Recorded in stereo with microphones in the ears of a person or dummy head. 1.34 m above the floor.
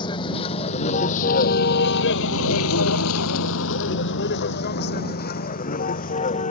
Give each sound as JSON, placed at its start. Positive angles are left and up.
{"t": 0.0, "sound": "a vehicle", "side_deg": 25}